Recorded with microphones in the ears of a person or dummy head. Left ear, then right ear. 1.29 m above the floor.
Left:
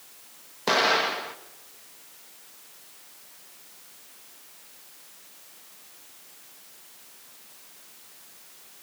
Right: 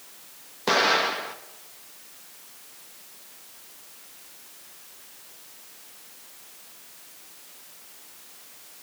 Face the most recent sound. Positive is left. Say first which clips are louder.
# right 1 dB
turn(degrees=5)  # may be behind; listen again after turning